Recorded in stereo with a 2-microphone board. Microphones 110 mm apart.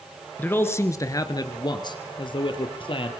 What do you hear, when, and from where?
0.4 s a man speaking: 15° left (ahead or behind), 1.5 m; by 3.1 s 55° left (ahead or behind), 2.5 m